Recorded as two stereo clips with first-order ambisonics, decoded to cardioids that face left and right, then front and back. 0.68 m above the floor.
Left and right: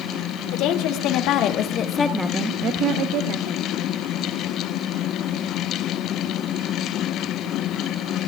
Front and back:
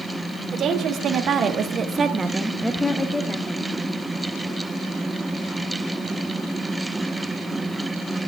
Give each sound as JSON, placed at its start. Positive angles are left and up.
{"t": 0.5, "sound": "a woman speaking", "azimuth_deg": 120, "distance_m": 2.0}